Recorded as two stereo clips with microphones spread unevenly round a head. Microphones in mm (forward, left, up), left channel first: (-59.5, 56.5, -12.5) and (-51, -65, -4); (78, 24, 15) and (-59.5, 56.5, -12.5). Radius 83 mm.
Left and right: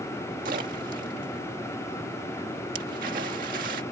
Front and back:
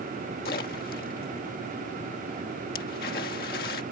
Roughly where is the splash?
Ahead right.